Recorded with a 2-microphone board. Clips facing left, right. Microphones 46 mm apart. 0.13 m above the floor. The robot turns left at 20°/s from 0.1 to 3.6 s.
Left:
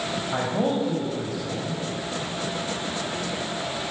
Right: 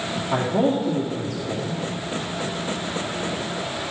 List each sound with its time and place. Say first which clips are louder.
0.3 s a man speaking: right 4 dB; 60° right (ahead or behind), 2.5 m; by 1.8 s 65° right (ahead or behind), 2.5 m